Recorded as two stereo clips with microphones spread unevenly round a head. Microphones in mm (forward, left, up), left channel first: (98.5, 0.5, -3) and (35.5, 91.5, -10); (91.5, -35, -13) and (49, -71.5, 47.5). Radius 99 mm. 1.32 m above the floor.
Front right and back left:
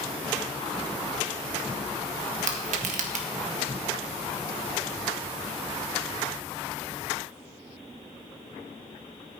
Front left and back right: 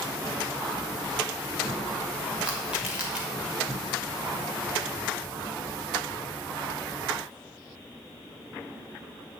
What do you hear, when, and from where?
2.4 s crushing: 130° left, 1.3 m